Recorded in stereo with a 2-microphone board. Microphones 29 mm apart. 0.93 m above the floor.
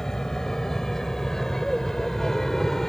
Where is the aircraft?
15° left (ahead or behind); by 2.9 s 10° left (ahead or behind).